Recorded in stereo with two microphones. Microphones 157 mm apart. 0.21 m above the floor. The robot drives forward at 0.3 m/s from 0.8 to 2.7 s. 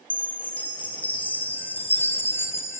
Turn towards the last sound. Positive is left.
turn(degrees=15)  # may be behind; listen again after turning